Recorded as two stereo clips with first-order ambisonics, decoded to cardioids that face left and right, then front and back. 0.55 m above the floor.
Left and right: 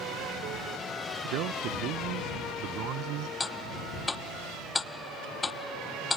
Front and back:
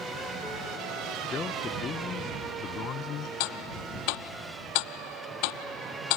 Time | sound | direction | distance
1.2 | a man speaking | 65° right | ?
3.4 | ticking | 10° left | ?